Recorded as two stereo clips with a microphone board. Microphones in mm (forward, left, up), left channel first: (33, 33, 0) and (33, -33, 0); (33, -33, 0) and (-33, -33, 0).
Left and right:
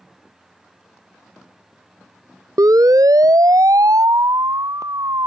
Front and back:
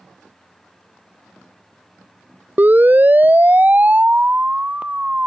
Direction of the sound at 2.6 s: 120° right.